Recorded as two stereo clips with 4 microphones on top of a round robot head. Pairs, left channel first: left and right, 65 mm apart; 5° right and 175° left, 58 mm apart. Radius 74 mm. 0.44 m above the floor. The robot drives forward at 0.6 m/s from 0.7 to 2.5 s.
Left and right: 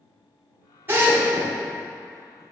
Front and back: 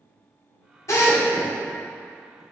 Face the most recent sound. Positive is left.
turn(degrees=-55)